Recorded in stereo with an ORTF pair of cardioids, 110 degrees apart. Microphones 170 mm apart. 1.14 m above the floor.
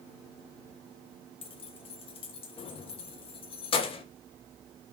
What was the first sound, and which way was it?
Keys jangling, 35° left.